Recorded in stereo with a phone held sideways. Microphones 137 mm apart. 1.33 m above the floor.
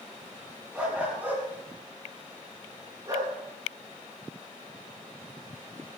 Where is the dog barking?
10° right (ahead or behind), 6 m; by 3.3 s 30° right (ahead or behind), 7.5 m.